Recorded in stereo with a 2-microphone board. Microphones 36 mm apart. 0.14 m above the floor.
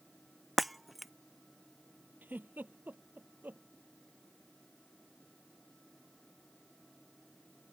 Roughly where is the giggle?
Right.